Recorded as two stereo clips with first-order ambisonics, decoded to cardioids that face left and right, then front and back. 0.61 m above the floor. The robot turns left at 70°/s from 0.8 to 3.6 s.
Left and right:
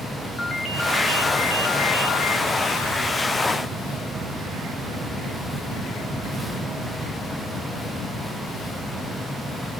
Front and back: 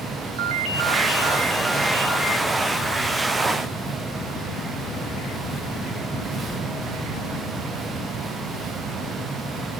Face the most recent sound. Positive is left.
turn(degrees=-35)